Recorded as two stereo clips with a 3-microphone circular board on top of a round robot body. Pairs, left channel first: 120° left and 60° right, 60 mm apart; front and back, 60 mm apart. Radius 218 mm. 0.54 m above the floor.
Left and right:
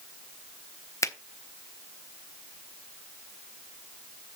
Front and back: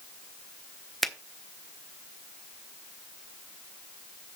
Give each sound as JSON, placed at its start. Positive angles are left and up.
{"t": 1.0, "sound": "a finger snap", "azimuth_deg": 85, "distance_m": 1.3}